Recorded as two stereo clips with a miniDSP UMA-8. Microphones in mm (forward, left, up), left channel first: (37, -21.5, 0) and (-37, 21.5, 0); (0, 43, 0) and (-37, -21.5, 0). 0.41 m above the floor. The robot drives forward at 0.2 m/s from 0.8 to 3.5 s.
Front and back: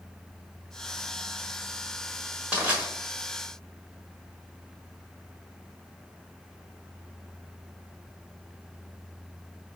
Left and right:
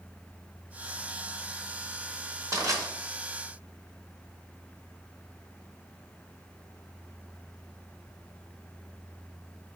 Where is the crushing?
135° right, 1.3 m; by 2.8 s 140° right, 1.3 m.